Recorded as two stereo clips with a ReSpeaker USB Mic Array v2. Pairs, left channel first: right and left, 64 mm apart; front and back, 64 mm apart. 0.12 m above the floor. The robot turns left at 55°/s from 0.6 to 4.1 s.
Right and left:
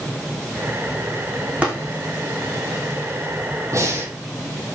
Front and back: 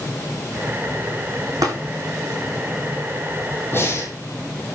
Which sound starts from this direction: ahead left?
Breathing, at 3.7 s.